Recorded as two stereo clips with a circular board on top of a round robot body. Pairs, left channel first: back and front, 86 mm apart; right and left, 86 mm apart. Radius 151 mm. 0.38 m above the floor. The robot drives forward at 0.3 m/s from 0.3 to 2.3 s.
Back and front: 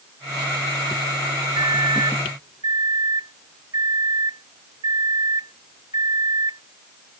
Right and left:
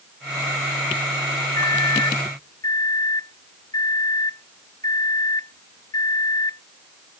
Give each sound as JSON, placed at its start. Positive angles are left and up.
{"t": 1.6, "sound": "a microwave", "azimuth_deg": -40}